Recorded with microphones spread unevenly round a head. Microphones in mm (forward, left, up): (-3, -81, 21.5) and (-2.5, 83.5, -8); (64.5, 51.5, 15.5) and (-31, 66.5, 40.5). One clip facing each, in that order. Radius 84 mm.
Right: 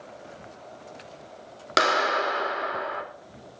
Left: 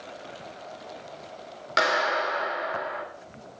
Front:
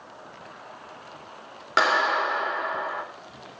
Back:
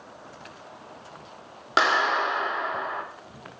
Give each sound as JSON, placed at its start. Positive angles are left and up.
{"t": 1.8, "sound": "a clap", "azimuth_deg": -110, "distance_m": 4.0}